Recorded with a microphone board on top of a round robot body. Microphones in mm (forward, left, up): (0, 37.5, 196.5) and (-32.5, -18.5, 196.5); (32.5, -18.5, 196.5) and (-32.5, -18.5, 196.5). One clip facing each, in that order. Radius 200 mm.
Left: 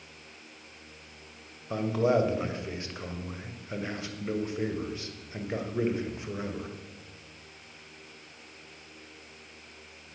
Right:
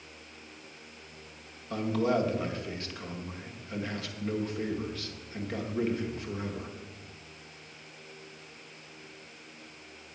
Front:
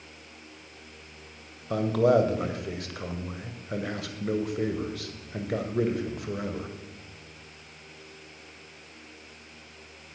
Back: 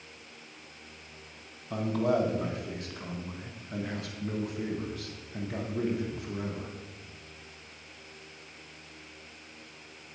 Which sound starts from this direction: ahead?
A man speaking, at 1.7 s.